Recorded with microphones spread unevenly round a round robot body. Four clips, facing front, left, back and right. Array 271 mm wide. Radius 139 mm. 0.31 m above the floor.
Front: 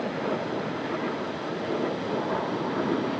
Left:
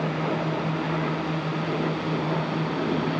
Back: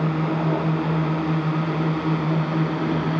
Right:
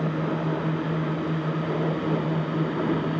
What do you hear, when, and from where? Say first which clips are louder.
0.0 s a drone: even, back 5 dB; 175° right; by 3.2 s straight behind